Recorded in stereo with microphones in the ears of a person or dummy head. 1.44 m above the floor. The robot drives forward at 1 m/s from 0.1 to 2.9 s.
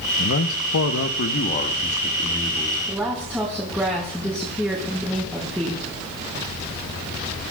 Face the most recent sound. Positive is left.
turn(degrees=-15)  # may be behind; listen again after turning